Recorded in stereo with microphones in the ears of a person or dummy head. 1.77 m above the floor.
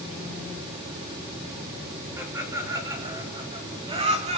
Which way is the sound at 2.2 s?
15° right (ahead or behind).